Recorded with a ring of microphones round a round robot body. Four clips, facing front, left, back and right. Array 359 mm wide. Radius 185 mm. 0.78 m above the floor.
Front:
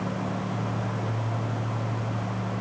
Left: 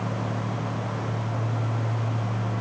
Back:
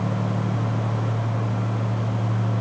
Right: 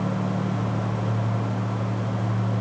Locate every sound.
Only background noise.